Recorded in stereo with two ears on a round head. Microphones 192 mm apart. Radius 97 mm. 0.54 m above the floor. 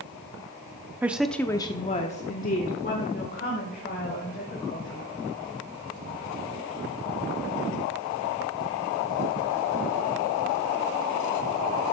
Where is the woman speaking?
10° right (ahead or behind), 0.8 m; by 5.1 s 40° left (ahead or behind), 3 m.